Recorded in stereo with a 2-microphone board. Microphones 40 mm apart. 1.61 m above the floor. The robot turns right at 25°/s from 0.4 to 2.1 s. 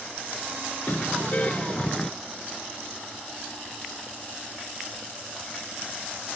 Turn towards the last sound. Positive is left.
turn(degrees=160)